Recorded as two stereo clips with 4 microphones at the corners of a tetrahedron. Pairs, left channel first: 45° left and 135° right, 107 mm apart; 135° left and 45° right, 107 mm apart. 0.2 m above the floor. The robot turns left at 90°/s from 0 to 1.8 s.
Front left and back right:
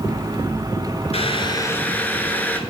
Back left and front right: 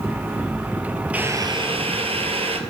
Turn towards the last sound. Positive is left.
turn(degrees=-30)